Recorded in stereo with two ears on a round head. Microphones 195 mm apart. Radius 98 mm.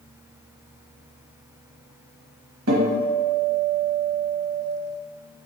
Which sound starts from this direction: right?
A guitar, at 2.7 s.